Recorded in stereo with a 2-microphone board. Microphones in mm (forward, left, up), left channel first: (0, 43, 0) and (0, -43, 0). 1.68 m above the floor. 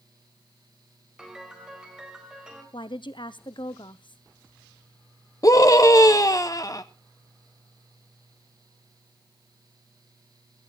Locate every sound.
1.2 s a piano: 5° right (ahead or behind), 4 m
2.7 s a woman speaking: 65° left (ahead or behind), 0.8 m
5.4 s a scream: 40° left (ahead or behind), 0.7 m